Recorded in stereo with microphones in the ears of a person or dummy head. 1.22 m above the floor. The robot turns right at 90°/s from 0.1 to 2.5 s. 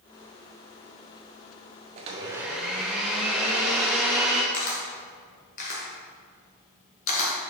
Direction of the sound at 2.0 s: 50° right.